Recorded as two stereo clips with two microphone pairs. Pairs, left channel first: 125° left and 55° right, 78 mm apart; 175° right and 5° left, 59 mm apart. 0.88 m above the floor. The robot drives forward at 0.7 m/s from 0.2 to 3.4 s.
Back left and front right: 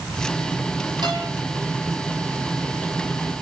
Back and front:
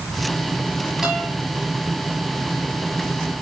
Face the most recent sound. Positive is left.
turn(degrees=-100)